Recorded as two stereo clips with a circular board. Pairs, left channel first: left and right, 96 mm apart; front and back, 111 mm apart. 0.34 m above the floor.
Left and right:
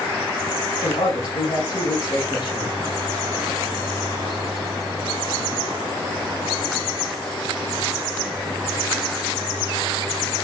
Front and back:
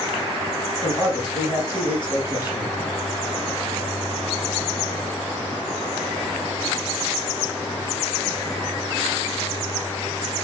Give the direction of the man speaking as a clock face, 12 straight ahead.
8 o'clock.